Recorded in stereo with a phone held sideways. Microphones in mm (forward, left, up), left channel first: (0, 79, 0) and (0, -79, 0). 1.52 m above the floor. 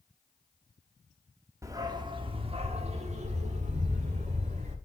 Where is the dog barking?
20° right (ahead or behind), 1.1 m; by 4.8 s 45° right (ahead or behind), 2.5 m.